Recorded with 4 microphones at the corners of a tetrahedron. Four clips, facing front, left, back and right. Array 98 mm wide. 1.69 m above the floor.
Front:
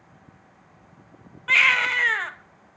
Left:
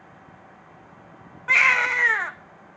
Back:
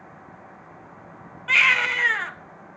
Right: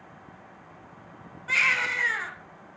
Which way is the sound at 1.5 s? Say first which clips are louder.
Left 6 dB, even; 85° left.